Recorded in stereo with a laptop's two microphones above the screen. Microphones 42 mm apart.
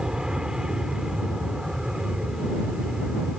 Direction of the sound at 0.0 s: 15° right (ahead or behind).